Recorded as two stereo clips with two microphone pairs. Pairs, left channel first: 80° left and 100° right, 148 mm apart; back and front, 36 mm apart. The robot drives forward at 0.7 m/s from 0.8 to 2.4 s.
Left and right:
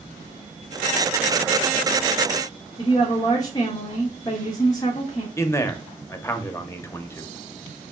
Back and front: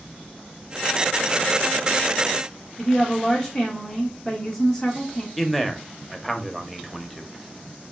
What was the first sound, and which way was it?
A woman speaking, 110° left.